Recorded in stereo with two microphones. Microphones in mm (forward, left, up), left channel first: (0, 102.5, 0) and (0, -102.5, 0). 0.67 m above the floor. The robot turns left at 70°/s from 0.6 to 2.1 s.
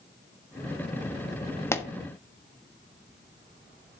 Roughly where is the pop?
Centre.